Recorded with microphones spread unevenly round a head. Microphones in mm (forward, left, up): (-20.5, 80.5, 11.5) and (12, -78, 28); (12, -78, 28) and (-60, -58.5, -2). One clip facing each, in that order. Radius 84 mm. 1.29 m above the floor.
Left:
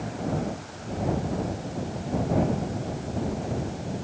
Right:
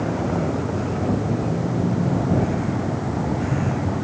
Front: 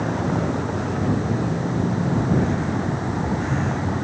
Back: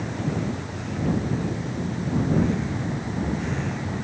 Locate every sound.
0.0 s a vehicle: 55° right; by 4.0 s 60° right